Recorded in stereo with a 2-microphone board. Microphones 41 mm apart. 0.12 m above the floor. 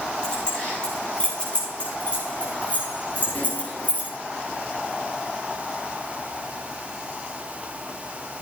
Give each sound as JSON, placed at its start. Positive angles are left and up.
{"t": 0.2, "sound": "keys jangling", "side_deg": 20, "distance_m": 7.5}